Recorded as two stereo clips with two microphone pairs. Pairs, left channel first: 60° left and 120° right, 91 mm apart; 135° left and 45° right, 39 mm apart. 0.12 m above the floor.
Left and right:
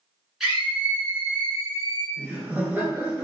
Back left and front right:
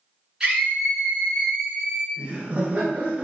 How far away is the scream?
About 1.3 m.